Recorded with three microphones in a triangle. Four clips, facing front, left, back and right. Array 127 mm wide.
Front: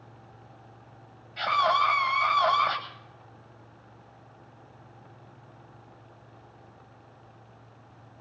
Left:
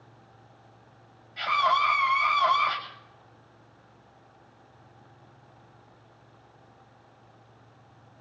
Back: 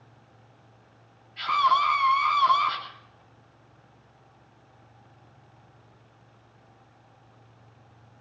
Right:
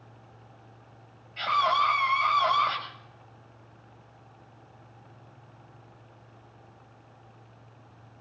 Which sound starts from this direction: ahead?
A scream, at 1.4 s.